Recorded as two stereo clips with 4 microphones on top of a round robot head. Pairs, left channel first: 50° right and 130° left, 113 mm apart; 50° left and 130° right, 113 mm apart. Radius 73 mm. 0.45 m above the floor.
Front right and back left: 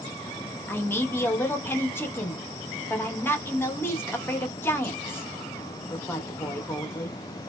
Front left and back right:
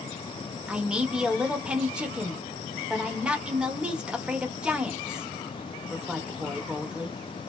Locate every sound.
0.7 s a man speaking: 65° right, 0.8 m